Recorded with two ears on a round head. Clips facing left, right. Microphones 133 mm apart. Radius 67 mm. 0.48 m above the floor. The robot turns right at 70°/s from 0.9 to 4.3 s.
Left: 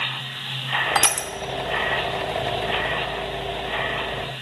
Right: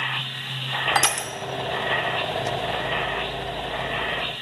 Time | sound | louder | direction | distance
0.9 | crushing | right 1 dB | centre (ahead or behind) | 0.6 m